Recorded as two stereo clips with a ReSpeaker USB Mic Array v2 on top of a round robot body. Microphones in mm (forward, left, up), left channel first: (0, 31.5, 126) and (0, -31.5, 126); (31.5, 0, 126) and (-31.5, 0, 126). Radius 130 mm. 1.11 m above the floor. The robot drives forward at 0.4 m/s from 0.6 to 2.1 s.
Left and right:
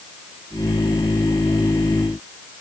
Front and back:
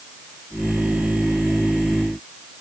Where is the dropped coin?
I don't hear a dropped coin.